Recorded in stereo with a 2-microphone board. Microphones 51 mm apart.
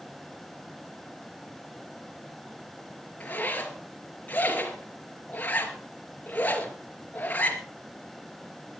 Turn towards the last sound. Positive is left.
turn(degrees=30)  # may be behind; listen again after turning